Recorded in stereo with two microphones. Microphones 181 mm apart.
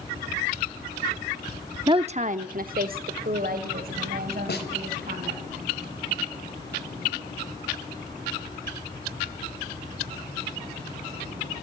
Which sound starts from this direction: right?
A woman speaking, at 1.9 s.